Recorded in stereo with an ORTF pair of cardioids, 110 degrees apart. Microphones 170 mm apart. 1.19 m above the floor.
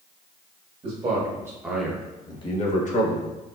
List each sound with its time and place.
0.8 s a man speaking: 35° right, 1.4 m; by 3.4 s 65° left, 1.2 m